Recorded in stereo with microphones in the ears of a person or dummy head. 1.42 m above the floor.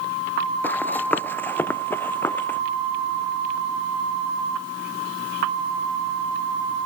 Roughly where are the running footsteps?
Centre.